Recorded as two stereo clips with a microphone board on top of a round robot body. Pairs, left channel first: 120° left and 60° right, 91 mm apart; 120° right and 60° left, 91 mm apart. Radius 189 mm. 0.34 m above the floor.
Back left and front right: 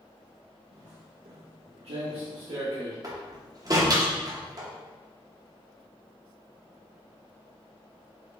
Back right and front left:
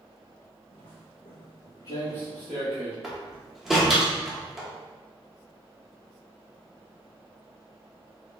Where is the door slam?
25° right, 1.0 m.